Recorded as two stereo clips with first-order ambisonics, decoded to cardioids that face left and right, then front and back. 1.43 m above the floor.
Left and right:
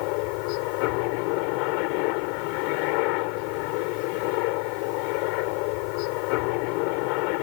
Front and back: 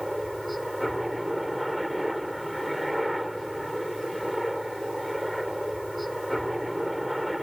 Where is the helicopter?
90° left.